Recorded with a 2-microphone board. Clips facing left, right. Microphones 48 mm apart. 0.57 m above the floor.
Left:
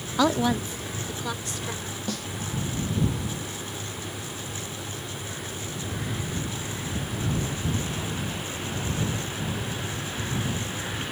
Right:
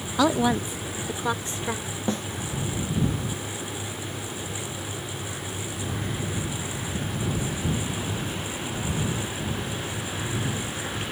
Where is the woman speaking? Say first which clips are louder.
Right 1 dB; centre (ahead or behind); by 1.9 s 30° right (ahead or behind).